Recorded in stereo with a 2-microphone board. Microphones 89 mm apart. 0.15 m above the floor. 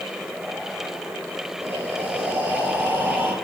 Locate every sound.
1.6 s breathing: 25° right (ahead or behind), 4 m